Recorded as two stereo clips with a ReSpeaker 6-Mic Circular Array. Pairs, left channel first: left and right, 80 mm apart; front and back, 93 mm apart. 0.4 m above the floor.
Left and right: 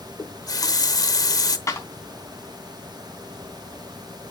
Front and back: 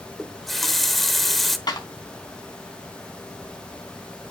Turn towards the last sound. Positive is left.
turn(degrees=40)